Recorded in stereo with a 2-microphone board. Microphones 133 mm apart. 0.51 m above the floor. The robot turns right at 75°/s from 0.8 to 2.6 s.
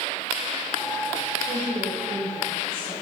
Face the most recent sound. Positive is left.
turn(degrees=-15)